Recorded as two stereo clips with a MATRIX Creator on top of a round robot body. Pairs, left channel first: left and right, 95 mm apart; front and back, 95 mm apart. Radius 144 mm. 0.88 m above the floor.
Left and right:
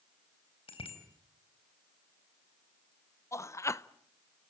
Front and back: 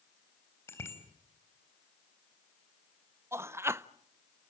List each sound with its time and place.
0.7 s a bicycle bell: 65° left, 4 m
3.3 s a man speaking: 130° left, 0.9 m